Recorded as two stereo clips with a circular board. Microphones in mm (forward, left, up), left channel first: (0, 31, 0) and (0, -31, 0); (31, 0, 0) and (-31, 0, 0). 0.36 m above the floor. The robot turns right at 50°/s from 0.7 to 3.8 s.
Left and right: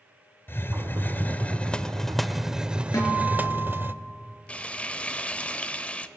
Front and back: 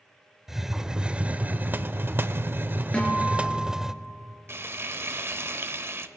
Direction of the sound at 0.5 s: 100° left.